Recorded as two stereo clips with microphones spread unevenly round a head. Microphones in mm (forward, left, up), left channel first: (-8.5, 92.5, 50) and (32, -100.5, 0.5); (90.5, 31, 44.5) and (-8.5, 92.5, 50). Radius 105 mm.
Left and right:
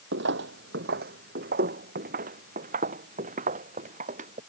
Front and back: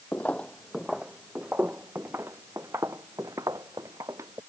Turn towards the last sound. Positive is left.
turn(degrees=-135)